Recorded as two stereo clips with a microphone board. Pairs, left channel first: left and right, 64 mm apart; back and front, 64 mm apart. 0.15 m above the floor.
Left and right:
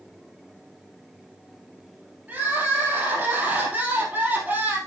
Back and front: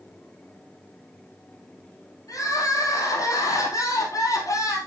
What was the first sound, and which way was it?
Crying, 155° right.